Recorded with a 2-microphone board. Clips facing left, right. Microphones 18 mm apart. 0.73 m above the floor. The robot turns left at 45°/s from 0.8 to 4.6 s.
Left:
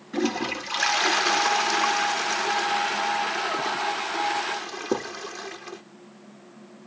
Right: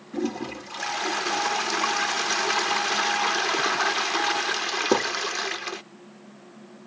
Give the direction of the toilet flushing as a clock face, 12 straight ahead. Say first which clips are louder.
Left 3 dB; 10 o'clock.